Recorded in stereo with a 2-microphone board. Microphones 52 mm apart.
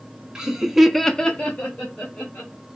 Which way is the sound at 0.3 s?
10° right (ahead or behind).